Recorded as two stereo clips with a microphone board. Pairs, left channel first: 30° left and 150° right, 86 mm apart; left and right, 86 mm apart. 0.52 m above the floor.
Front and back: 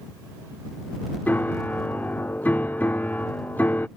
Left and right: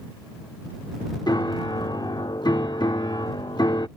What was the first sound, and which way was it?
A piano, 95° left.